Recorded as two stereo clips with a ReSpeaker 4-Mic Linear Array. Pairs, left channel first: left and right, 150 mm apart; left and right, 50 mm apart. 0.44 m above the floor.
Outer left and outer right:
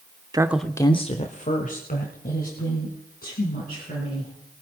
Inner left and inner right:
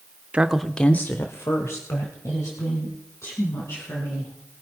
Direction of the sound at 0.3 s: 25° right (ahead or behind).